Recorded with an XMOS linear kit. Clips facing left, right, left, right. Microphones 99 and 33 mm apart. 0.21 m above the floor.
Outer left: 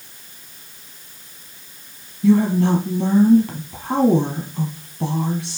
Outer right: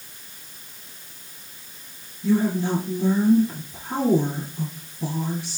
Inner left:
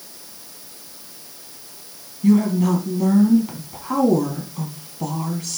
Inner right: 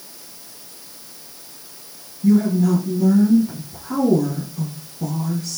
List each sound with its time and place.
2.2 s a woman speaking: 75° left (ahead or behind), 5 m